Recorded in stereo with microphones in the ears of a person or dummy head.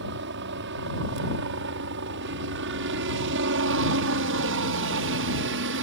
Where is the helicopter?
60° right (ahead or behind); by 5.8 s 65° right (ahead or behind).